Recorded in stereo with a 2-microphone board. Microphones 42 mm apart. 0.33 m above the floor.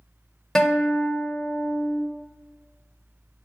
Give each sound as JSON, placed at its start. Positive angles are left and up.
{"t": 0.6, "sound": "a guitar", "side_deg": 10, "distance_m": 1.0}